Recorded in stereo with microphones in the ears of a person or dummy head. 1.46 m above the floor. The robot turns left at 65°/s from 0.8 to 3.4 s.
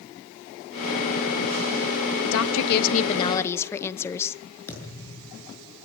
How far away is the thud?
About 7.5 m.